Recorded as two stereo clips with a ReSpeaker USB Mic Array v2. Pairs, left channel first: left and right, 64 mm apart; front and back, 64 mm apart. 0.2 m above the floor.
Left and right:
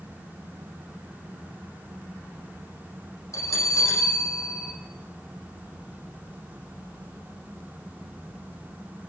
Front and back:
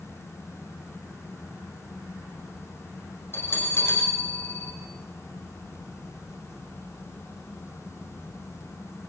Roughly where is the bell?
Ahead left.